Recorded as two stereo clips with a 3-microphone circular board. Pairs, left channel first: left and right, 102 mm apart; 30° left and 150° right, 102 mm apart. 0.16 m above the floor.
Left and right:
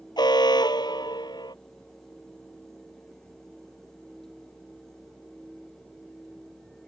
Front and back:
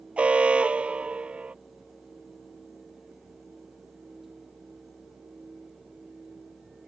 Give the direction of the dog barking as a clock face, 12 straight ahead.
I don't hear a dog barking.